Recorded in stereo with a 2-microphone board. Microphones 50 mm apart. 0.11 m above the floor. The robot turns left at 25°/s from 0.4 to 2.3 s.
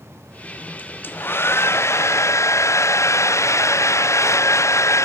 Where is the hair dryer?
140° left; by 5.0 s 105° left.